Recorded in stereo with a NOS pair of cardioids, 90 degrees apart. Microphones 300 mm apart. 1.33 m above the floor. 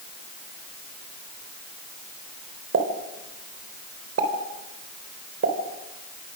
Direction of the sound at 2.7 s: 50° right.